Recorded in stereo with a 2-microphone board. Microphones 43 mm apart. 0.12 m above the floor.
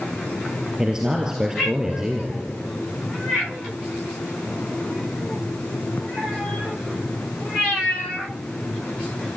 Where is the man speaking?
15° right (ahead or behind), 2 m.